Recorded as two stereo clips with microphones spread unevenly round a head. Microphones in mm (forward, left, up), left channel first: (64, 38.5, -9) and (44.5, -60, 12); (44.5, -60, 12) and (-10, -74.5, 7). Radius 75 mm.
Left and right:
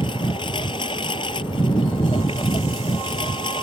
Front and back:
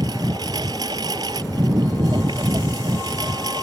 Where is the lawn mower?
145° left.